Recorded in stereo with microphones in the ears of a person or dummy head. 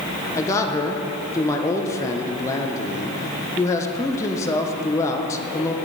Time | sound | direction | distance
0.3 | a man speaking | 20° left (ahead or behind) | 0.8 m